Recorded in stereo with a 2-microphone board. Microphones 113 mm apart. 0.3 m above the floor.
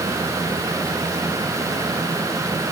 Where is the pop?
I don't hear a pop.